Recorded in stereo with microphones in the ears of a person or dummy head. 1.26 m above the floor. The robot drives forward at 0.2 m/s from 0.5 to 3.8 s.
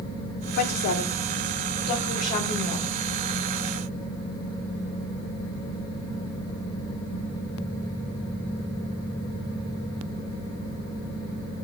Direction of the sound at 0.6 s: 50° left (ahead or behind).